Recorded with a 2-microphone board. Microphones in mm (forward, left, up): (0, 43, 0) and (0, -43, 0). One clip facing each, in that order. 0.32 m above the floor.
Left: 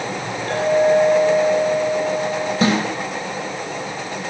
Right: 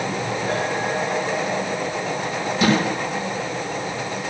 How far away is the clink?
About 7 m.